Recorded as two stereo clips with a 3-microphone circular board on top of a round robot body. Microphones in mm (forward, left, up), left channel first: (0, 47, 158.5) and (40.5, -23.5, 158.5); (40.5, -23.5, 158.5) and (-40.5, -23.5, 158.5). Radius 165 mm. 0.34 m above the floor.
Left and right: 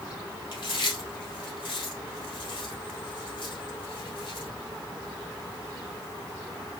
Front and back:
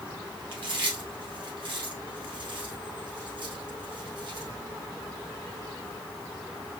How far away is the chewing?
About 2.5 m.